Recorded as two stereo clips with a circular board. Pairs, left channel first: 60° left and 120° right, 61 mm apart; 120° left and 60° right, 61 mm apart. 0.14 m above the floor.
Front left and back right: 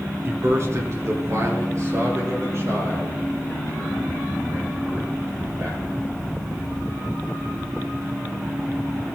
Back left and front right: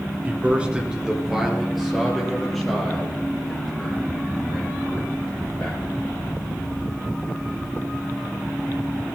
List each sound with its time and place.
0.2 s a man speaking: 110° right, 1.8 m; by 6.1 s 160° right, 8.5 m